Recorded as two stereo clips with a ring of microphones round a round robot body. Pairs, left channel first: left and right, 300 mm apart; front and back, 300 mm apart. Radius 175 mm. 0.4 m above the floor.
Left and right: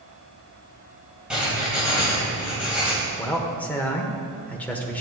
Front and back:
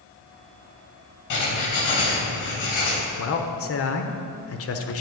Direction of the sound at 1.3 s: 5° right.